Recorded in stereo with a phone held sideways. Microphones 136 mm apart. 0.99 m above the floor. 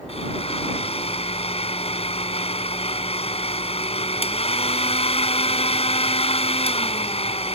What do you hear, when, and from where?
0.1 s a blender: 45° left (ahead or behind)